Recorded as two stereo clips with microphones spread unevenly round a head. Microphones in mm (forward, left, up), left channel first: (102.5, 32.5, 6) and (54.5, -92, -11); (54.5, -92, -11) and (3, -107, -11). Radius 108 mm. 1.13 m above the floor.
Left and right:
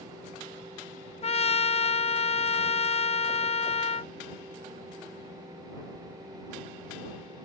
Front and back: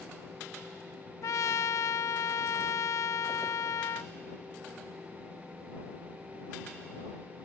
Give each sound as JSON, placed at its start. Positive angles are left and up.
{"t": 1.2, "sound": "a trumpet", "azimuth_deg": 30}